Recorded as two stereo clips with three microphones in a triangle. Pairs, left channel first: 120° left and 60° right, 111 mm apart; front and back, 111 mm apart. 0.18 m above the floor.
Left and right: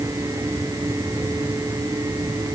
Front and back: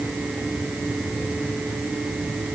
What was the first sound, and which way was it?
Only background noise.